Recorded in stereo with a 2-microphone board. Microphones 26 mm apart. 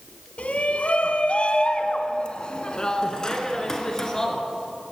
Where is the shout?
55° left (ahead or behind), 1.9 m; by 4.4 s 20° left (ahead or behind), 3.5 m.